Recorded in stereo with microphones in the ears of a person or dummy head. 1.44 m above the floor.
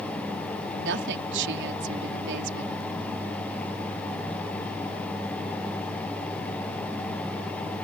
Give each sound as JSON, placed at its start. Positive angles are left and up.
{"t": 0.8, "sound": "a woman speaking", "side_deg": -70}